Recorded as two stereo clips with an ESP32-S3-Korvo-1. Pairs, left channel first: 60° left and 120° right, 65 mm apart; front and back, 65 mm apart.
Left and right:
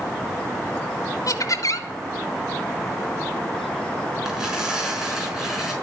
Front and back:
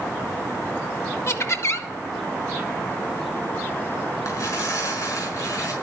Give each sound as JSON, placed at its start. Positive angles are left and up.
{"t": 1.3, "sound": "laughter", "azimuth_deg": 40, "distance_m": 1.9}
{"t": 4.2, "sound": "tearing paper", "azimuth_deg": -35, "distance_m": 5.0}